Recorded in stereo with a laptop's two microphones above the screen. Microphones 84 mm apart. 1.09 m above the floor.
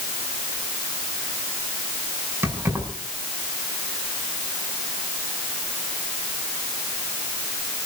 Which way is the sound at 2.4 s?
30° right (ahead or behind).